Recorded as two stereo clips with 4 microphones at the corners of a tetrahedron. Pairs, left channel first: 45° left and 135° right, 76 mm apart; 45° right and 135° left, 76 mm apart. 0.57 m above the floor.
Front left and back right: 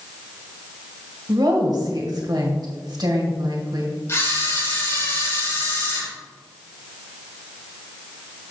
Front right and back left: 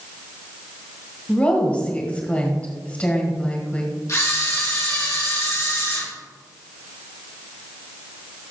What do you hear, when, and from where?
1.3 s a woman speaking: 115° right, 2.5 m
4.1 s a camera shutter: 5° right, 3 m